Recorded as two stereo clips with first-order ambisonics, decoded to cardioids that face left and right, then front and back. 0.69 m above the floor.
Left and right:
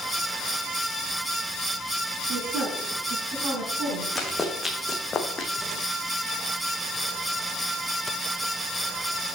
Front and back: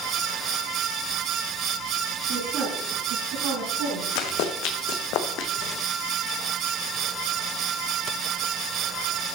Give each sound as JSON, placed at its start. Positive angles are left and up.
{"t": 2.3, "sound": "a woman speaking", "azimuth_deg": -140, "distance_m": 6.0}
{"t": 4.2, "sound": "running footsteps", "azimuth_deg": 5, "distance_m": 1.9}